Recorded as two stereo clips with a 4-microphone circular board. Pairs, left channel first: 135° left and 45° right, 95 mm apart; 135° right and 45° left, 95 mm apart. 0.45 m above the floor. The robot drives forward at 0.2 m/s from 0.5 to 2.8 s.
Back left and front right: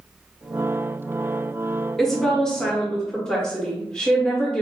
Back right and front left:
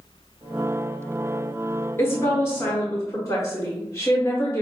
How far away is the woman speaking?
About 0.9 m.